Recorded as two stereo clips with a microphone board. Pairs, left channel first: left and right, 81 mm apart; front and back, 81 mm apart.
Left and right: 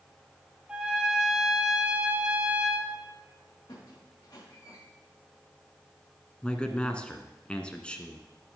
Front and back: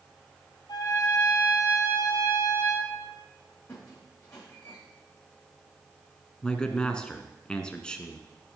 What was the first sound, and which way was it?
A trumpet, 15° right.